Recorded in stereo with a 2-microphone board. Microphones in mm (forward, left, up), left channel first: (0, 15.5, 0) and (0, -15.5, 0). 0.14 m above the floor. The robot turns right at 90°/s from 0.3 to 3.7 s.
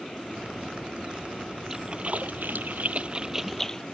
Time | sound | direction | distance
1.7 | a splash | 10° right (ahead or behind) | ?